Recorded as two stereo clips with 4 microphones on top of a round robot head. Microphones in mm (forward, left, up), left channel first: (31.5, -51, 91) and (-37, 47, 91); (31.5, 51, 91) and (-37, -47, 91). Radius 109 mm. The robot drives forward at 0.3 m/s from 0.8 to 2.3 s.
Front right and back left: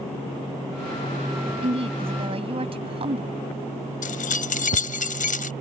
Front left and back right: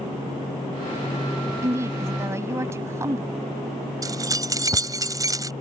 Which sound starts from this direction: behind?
A woman speaking, at 1.6 s.